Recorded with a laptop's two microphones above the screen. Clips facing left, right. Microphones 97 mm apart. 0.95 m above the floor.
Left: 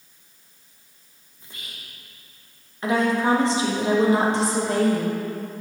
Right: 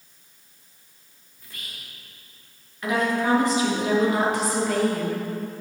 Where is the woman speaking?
30° left (ahead or behind), 0.9 m.